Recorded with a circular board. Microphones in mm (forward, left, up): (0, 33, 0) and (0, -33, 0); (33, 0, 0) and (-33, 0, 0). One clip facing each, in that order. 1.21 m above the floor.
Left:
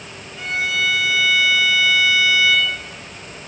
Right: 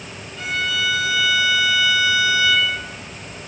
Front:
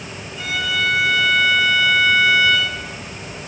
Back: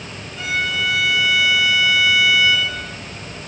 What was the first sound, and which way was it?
A violin, 150° left.